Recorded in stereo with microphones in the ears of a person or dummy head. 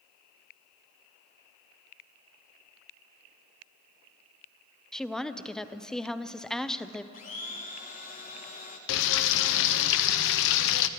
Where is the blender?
35° left (ahead or behind), 1.0 m.